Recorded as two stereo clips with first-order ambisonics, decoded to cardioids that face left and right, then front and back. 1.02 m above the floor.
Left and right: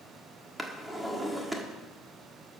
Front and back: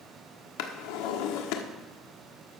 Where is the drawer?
5° right, 1.4 m.